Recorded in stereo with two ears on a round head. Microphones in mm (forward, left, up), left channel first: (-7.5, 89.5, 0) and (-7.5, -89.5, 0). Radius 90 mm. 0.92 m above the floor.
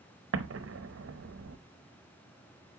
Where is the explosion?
70° right (ahead or behind), 0.8 m.